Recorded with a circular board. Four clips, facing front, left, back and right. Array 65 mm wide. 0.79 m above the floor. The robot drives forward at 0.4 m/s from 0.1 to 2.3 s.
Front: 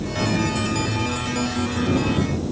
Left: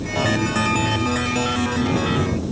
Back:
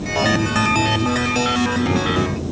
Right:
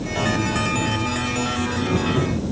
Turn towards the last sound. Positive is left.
No sound to turn to.